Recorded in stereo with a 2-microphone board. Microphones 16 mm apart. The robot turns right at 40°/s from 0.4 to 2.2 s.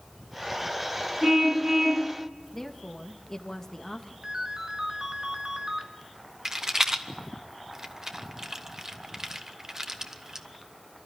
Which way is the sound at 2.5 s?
25° left (ahead or behind).